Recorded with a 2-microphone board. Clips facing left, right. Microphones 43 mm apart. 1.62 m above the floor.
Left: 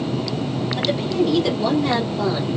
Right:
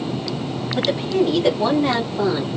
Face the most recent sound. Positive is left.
turn(degrees=-15)  # may be behind; listen again after turning